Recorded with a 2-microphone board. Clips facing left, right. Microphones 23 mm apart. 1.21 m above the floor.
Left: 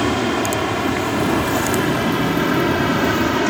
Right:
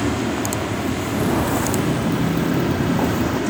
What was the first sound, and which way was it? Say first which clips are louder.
An aircraft: left 3 dB; 45° left (ahead or behind).